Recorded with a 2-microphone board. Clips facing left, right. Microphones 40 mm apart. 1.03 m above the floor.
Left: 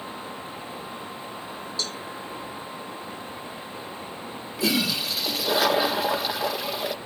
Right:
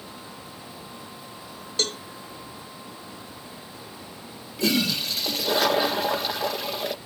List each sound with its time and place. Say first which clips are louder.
1.8 s a cowbell: right 6 dB; 70° right (ahead or behind)
4.6 s a toilet flushing: right 1 dB; 5° left (ahead or behind)